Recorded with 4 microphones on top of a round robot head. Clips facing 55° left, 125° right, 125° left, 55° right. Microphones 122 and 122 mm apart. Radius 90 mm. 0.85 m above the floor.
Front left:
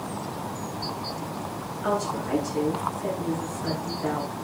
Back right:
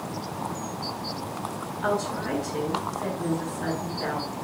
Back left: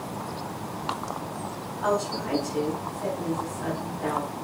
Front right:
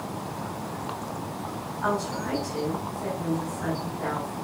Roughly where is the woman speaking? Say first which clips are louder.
Even, back left 2 dB; behind right.